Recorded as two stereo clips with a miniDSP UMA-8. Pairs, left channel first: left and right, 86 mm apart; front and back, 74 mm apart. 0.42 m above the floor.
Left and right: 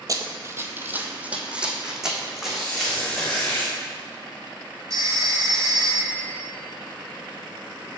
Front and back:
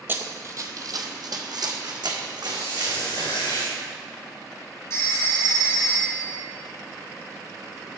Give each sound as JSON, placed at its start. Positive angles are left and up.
{"t": 0.1, "sound": "running footsteps", "azimuth_deg": -125, "distance_m": 0.6}
{"t": 2.5, "sound": "a squeak", "azimuth_deg": 5, "distance_m": 2.5}
{"t": 4.9, "sound": "a phone ringing", "azimuth_deg": -45, "distance_m": 1.9}